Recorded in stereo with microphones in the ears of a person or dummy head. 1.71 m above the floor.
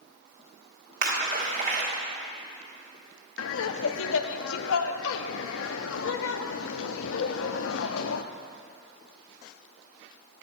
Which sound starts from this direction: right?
A splash, at 1.0 s.